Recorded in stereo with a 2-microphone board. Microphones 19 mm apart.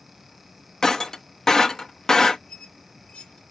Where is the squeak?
60° left (ahead or behind), 3 m.